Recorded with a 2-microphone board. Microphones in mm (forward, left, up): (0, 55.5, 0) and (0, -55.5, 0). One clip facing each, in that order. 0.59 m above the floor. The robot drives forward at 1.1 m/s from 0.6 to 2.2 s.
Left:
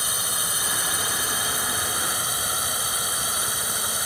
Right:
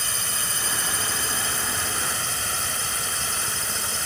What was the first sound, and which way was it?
A drone, 10° left (ahead or behind).